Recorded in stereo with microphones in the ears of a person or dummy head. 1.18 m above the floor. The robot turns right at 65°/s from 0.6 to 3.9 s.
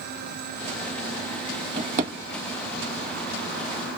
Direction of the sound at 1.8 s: 55° right (ahead or behind).